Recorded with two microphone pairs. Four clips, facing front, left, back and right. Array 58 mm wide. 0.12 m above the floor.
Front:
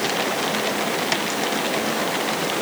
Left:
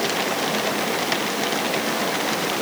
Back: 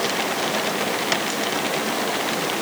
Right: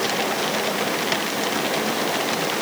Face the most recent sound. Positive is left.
No sound to turn to.